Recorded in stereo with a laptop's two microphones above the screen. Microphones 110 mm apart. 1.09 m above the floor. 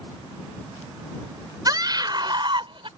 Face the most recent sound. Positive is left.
turn(degrees=-50)  # may be behind; listen again after turning